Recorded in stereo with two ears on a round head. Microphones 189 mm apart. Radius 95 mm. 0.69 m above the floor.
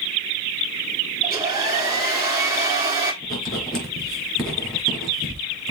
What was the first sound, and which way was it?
A hair dryer, 15° right (ahead or behind).